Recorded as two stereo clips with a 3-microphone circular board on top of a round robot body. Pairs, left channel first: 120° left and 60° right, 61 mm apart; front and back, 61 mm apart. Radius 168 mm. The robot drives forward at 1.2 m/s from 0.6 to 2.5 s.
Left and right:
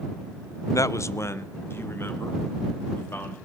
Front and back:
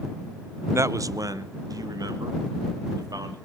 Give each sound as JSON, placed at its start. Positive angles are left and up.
{"t": 0.7, "sound": "a man speaking", "azimuth_deg": 140, "distance_m": 0.6}